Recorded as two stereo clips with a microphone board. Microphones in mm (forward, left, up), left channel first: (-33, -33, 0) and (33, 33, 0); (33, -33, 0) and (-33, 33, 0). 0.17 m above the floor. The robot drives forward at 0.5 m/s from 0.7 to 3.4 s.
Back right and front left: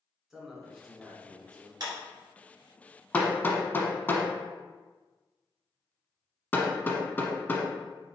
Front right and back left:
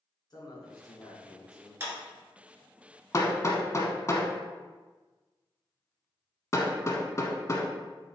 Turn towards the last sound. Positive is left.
turn(degrees=-85)